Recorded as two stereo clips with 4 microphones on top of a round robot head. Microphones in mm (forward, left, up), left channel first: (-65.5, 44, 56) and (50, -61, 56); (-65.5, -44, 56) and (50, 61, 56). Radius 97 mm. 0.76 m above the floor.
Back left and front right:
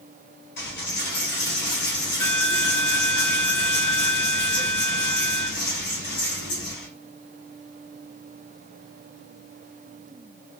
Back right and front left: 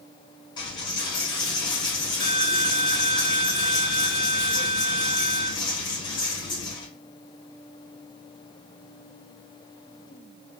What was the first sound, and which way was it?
A dropped coin, 155° left.